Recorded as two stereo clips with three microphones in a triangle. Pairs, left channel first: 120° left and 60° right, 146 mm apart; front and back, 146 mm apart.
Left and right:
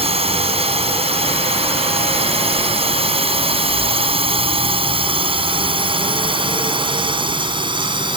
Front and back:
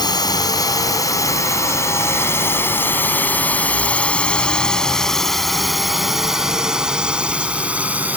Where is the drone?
50° right; by 8.2 s 105° right.